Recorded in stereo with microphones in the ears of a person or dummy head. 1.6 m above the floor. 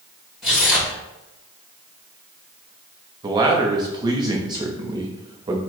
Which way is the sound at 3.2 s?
20° right (ahead or behind).